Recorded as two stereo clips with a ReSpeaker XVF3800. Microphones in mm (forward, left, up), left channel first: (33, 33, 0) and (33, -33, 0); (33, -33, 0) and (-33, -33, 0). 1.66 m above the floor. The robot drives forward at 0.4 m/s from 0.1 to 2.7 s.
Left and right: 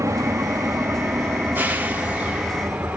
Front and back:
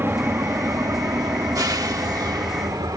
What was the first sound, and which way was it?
An engine running, 130° right.